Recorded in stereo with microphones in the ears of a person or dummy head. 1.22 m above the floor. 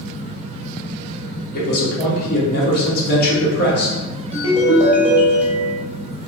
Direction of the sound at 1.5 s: 50° left (ahead or behind).